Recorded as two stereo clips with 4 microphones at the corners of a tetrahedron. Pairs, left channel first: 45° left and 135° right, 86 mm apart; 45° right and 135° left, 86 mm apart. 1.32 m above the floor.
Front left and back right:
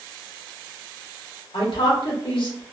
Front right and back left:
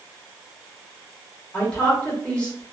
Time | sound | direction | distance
1.5 | a woman speaking | 30° left | 1.2 m